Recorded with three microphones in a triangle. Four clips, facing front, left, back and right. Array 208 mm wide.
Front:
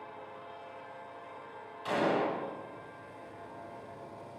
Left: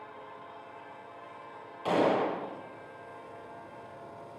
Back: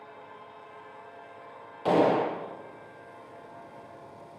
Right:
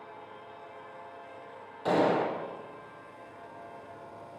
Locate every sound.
1.9 s a gunshot: 170° right, 2 m